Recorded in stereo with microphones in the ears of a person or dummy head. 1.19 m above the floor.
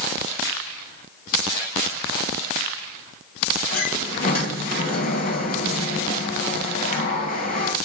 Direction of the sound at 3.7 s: 50° left (ahead or behind).